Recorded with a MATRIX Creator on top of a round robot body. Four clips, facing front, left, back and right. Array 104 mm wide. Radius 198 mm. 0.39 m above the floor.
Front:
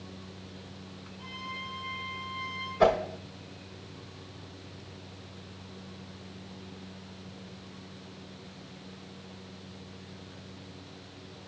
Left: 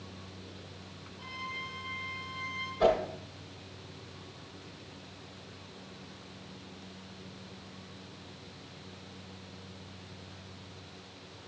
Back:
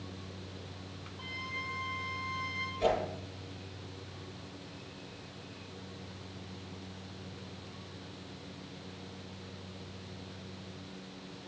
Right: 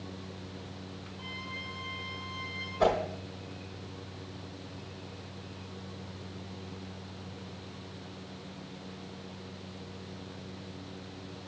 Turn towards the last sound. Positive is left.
turn(degrees=-10)